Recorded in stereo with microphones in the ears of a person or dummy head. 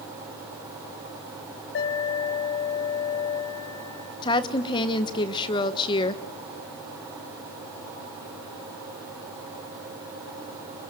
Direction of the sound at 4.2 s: 25° left (ahead or behind).